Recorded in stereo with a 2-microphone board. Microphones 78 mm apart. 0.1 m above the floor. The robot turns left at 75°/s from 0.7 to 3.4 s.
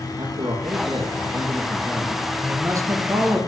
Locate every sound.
0.2 s a man speaking: 105° right, 2.5 m; by 2.2 s 140° left, 2.5 m
2.4 s a man speaking: 50° right, 1.8 m; by 3.4 s 120° right, 1.8 m